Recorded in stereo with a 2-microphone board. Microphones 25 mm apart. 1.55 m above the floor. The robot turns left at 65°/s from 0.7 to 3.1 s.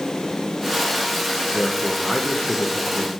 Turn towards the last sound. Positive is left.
turn(degrees=90)